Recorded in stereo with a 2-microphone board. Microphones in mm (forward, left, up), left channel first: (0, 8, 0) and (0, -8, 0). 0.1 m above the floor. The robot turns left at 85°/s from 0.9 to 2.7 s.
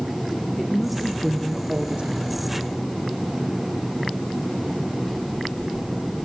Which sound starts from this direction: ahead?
A woman speaking, at 0.6 s.